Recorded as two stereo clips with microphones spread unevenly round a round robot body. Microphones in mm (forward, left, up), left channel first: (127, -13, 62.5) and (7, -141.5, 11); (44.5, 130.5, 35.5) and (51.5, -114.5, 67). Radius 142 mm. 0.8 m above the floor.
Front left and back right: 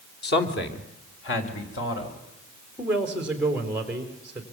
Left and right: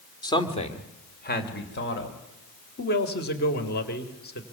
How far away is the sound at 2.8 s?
About 3 m.